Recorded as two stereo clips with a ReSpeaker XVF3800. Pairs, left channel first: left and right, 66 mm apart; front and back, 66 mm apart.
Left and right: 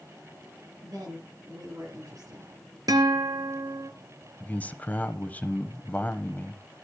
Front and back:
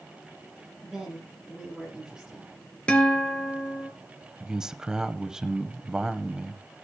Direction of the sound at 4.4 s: 115° left.